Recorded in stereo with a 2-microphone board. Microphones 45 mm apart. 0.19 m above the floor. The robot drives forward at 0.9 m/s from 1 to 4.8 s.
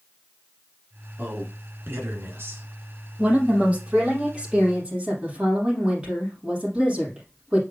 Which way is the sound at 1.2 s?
40° right (ahead or behind).